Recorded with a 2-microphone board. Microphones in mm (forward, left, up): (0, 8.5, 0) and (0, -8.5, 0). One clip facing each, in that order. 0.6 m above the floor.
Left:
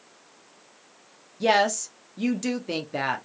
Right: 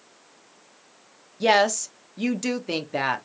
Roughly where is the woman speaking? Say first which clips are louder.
Right 2 dB; centre.